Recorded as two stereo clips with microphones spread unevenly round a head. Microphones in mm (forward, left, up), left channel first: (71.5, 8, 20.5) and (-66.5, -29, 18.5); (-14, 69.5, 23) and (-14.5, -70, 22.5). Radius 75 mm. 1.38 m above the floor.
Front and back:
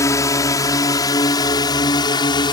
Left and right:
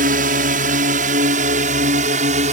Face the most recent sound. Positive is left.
turn(degrees=-45)